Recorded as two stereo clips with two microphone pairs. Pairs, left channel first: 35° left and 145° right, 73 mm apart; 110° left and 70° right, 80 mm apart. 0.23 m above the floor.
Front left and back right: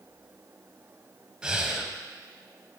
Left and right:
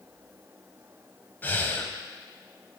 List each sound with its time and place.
1.4 s breathing: 145° left, 0.7 m